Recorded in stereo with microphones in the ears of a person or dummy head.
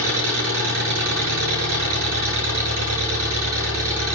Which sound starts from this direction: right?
An engine running, at 0.0 s.